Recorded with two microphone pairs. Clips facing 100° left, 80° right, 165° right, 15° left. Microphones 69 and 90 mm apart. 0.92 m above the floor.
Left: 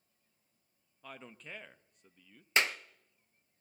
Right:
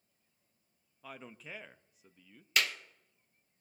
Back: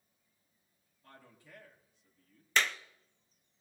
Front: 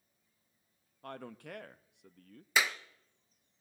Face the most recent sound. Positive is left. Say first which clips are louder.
# left 2 dB, even
turn(degrees=95)